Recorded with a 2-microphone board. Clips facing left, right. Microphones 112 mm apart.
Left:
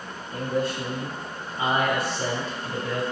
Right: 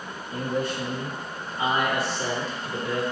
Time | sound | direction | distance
0.3 | a man speaking | 15° right (ahead or behind) | 1.3 m